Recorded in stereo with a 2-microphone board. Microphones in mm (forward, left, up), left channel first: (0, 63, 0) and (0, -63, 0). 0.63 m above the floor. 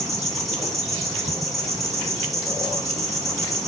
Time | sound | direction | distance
0.0 | an insect | centre (ahead or behind) | 1.5 m